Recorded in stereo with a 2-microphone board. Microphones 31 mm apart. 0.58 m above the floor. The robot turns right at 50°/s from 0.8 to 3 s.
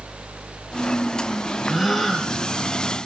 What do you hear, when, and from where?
1.7 s a gasp: 15° right, 3 m; by 2.3 s 20° left, 3 m